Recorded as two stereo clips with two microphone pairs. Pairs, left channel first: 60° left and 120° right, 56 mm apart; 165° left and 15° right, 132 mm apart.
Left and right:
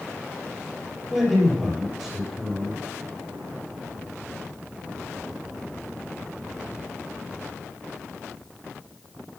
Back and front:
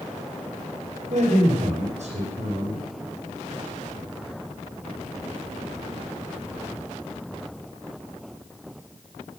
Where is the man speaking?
35° right, 3.5 m.